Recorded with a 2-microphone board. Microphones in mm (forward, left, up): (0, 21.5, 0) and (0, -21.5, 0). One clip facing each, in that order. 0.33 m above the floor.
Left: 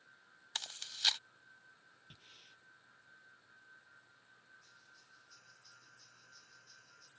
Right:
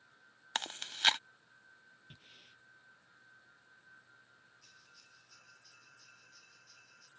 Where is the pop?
No pop in this recording.